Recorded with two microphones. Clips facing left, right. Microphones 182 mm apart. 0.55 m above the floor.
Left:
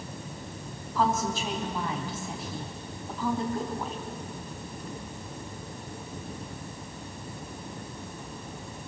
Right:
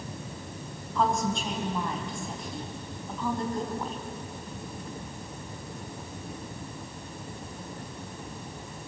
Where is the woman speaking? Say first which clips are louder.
Even; 5° left (ahead or behind), 4 m.